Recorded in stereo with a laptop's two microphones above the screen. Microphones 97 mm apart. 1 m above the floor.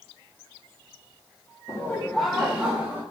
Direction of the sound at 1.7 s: 30° left (ahead or behind).